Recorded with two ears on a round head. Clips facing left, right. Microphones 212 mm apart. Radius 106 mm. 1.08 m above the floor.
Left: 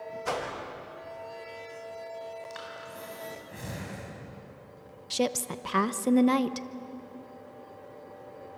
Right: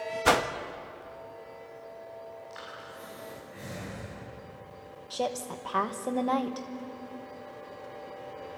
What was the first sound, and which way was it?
A whoosh, 80° right.